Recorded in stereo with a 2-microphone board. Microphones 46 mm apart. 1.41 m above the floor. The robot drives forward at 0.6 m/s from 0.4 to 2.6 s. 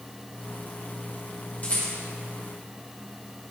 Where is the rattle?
35° left (ahead or behind), 1.9 m; by 1.9 s 40° left (ahead or behind), 1.8 m.